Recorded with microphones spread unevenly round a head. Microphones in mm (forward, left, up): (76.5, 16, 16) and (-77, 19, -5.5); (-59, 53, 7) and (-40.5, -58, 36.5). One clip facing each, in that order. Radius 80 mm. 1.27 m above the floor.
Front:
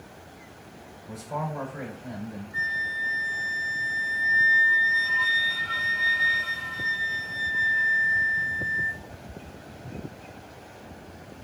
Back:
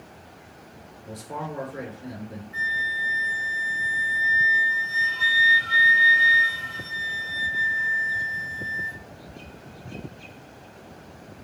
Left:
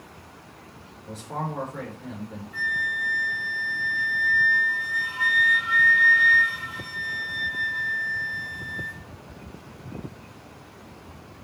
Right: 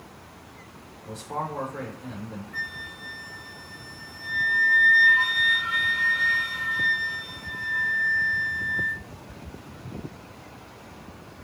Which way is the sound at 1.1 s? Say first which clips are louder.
Front 1 dB, even; 170° right.